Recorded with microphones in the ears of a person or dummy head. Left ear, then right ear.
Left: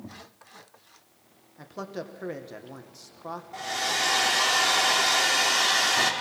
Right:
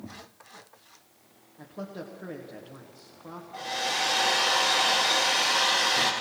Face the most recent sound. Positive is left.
turn(degrees=85)